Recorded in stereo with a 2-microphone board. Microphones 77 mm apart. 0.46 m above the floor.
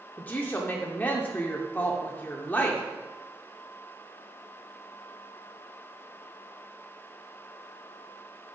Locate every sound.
0.2 s a woman speaking: 25° left (ahead or behind), 0.8 m